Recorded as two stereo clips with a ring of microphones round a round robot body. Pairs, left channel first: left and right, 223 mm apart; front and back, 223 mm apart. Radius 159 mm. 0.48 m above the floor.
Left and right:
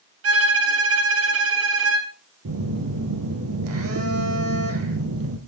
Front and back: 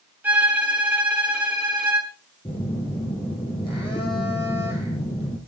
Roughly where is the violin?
Right.